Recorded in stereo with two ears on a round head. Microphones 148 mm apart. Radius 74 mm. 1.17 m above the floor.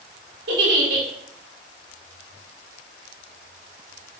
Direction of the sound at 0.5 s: 70° right (ahead or behind).